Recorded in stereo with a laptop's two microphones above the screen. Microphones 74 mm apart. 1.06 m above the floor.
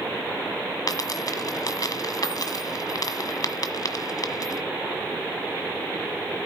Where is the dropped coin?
55° left (ahead or behind), 1.4 m.